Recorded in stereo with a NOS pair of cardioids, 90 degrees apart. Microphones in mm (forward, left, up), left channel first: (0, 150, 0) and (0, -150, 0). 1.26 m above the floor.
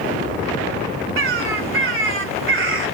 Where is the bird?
45° right, 1.8 m.